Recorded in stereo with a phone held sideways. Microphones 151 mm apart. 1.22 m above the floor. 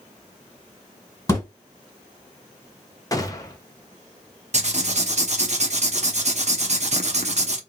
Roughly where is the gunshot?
Left.